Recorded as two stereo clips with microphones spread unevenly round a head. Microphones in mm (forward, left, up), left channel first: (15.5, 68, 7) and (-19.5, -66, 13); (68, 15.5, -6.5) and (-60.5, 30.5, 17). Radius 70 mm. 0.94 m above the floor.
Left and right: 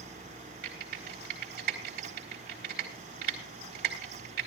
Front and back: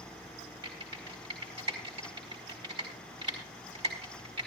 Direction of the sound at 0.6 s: 130° right.